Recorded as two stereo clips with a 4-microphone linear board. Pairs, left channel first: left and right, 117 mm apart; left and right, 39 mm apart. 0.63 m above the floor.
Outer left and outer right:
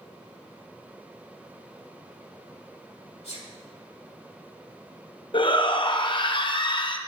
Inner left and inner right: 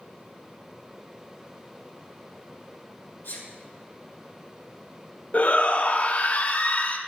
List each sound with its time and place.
3.2 s a sneeze: 60° left (ahead or behind), 3 m
5.3 s a shout: 45° left (ahead or behind), 0.8 m